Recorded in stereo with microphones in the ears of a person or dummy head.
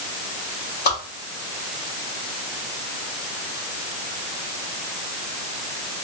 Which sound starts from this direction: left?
A whoosh, at 0.8 s.